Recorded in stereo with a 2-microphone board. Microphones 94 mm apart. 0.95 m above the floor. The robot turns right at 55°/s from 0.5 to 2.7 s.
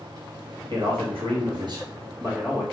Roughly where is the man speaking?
Behind right.